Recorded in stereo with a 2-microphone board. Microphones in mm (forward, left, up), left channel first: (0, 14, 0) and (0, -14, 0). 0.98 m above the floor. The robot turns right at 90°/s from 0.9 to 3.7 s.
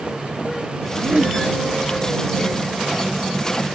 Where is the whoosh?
75° right; by 1.4 s 30° right.